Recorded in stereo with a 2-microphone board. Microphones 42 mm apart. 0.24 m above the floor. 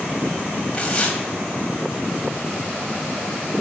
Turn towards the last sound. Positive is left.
turn(degrees=20)  # may be behind; listen again after turning